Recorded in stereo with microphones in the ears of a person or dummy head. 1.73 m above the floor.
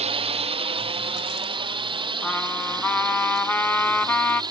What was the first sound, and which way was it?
A drone, 30° right (ahead or behind).